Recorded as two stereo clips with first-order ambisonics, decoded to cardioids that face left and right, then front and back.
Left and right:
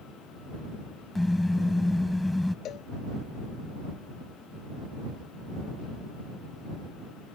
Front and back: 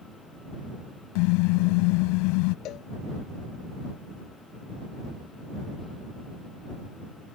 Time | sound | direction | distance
1.1 | a car horn | 5° left | ?
2.6 | a cowbell | 40° left | ?